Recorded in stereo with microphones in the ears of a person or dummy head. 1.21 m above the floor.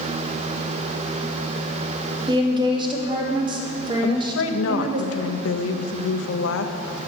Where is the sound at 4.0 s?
75° left (ahead or behind), 0.7 m.